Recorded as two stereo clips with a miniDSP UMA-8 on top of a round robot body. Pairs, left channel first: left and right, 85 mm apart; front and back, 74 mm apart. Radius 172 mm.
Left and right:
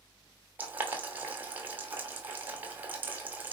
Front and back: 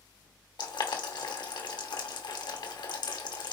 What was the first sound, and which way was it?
Boiling, 20° right.